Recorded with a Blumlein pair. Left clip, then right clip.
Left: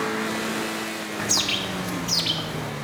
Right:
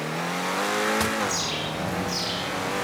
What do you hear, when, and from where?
1.2 s a bird: 25° left, 2 m